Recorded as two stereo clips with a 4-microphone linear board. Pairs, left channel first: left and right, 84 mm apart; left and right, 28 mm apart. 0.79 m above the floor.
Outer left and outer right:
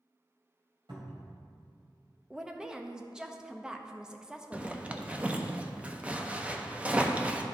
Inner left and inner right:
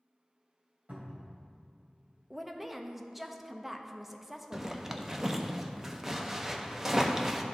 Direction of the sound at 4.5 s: 15° right (ahead or behind).